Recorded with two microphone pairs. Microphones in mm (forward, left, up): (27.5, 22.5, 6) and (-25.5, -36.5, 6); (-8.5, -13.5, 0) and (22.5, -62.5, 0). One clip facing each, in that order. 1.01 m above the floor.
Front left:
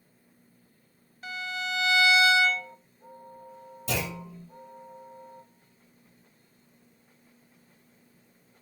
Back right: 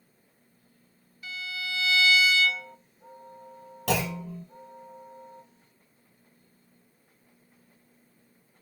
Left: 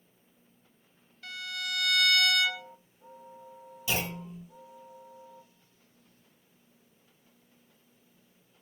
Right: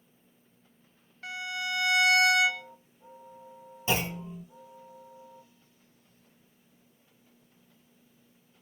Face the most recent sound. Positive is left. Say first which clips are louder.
# back right 5 dB, right 3 dB
turn(degrees=-110)